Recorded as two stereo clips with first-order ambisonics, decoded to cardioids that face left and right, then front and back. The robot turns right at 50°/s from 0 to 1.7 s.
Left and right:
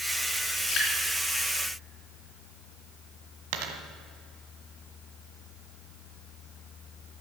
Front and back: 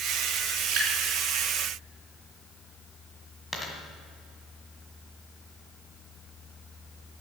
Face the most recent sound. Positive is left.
turn(degrees=-80)